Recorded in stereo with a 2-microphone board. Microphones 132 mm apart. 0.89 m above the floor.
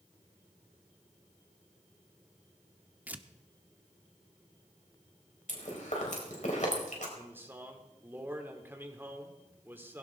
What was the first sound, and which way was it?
Tearing paper, 10° right (ahead or behind).